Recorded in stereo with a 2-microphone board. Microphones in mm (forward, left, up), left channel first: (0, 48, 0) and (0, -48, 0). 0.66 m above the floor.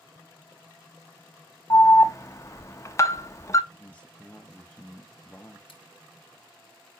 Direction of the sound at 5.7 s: 80° left.